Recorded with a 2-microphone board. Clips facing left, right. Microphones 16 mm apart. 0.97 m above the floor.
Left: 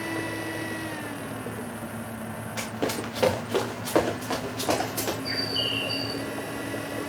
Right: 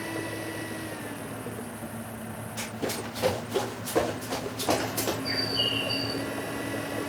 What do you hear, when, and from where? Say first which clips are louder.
2.6 s running footsteps: left 3 dB; 80° left, 7 m; by 5.2 s 85° left, 10 m
5.2 s a bird: even; 25° left (ahead or behind), 2 m